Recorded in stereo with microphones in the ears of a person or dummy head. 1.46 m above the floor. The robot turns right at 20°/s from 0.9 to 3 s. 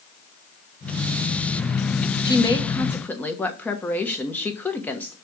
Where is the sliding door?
I don't hear a sliding door.